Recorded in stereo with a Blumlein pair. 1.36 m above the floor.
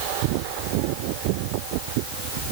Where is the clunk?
No clunk in this recording.